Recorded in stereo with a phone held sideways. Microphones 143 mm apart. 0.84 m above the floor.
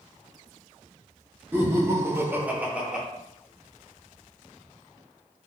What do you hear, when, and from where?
1.5 s laughter: 15° right (ahead or behind), 0.6 m; by 3.0 s 5° right (ahead or behind), 1.0 m